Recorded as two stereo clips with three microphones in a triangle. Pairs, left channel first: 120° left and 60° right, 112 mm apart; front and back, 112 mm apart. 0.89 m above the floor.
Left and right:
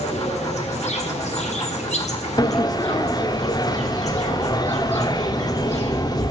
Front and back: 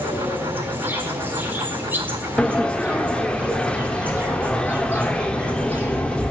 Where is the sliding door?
80° left, 0.6 m.